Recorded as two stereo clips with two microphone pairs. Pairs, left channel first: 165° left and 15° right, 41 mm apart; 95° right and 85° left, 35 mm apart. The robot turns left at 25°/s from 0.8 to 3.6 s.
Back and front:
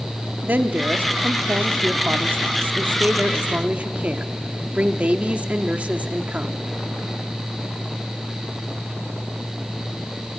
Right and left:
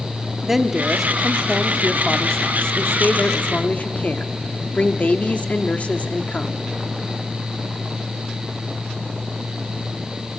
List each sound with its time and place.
0.4 s a woman speaking: 5° left, 0.8 m; by 6.6 s 65° right, 0.8 m